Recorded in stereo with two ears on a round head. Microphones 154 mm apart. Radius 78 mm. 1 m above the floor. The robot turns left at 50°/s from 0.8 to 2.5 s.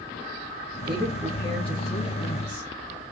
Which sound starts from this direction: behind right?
A woman speaking, at 0.9 s.